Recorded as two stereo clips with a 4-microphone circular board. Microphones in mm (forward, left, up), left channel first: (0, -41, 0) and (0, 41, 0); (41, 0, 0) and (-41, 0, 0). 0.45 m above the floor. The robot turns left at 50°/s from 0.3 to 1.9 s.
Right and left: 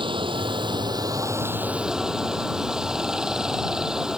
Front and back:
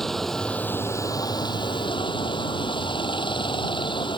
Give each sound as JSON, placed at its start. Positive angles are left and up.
{"t": 0.0, "sound": "running water", "azimuth_deg": 85}